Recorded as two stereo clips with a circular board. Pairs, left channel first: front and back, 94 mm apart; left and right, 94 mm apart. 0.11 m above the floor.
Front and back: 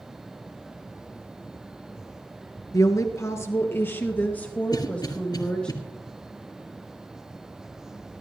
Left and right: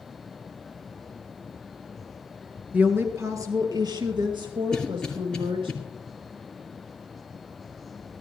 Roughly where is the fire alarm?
No fire alarm in this recording.